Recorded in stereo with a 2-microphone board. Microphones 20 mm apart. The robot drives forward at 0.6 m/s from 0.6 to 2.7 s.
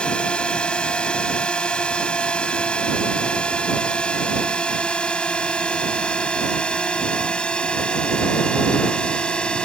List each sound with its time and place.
0.0 s a drone: 55° left (ahead or behind)